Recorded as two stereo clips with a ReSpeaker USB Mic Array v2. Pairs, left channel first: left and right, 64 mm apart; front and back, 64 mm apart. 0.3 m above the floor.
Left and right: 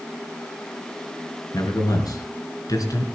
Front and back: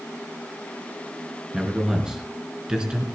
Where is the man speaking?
100° left, 5 m; by 3.1 s 105° left, 4 m.